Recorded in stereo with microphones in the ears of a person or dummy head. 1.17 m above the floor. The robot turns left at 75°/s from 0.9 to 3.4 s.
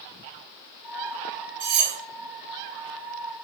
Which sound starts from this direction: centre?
Cutlery clinking, at 1.6 s.